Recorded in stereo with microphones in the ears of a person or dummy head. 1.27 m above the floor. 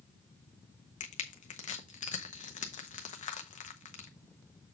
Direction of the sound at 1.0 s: 40° left (ahead or behind).